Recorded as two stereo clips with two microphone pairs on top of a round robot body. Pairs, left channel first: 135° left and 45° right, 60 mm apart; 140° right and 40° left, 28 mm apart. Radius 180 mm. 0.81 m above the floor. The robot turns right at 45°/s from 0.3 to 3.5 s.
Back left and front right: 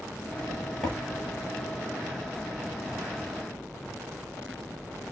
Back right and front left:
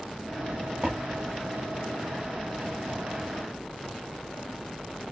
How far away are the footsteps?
About 0.8 m.